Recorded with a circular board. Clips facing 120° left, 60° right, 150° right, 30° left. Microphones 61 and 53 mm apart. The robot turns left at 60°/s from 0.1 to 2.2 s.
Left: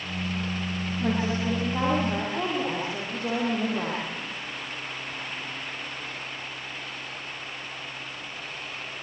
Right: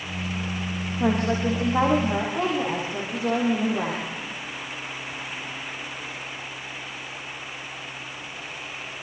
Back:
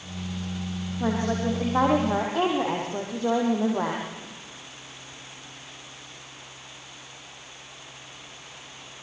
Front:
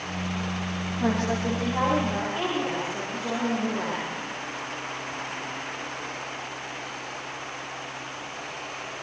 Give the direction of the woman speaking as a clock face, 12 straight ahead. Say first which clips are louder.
Right 5 dB, even; 2 o'clock.